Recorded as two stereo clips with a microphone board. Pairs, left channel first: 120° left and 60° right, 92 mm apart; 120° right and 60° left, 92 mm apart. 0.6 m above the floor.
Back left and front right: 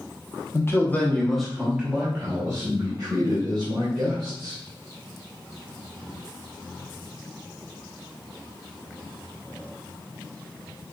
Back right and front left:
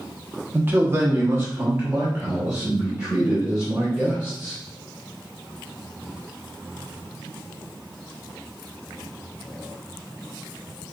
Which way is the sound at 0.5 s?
105° left.